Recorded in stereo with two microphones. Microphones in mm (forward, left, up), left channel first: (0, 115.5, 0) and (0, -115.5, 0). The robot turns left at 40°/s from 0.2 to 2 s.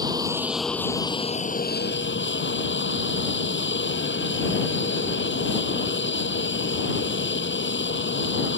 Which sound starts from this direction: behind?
An aircraft, at 0.0 s.